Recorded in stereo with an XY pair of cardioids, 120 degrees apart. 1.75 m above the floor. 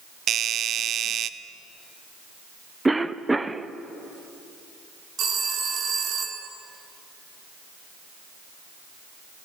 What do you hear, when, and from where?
0.3 s a doorbell: 55° right, 1.0 m
2.9 s a cough: 10° right, 1.0 m
5.2 s a phone ringing: 60° right, 3 m